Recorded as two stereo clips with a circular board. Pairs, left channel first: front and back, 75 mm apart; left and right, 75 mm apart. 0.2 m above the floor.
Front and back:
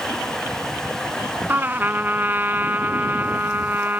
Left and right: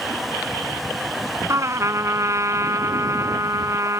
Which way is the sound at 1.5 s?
120° right.